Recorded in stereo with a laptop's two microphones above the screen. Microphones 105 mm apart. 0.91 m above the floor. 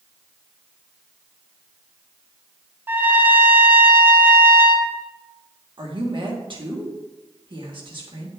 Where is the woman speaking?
50° right (ahead or behind), 1.2 m.